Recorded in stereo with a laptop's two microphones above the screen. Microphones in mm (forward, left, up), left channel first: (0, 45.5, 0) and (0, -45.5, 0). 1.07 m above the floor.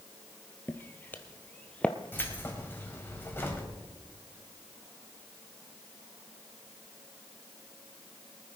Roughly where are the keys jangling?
Left.